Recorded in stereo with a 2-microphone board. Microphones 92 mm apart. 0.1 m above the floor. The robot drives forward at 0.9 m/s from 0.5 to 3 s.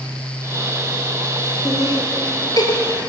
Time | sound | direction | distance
1.6 | laughter | 40° left (ahead or behind) | 2.5 m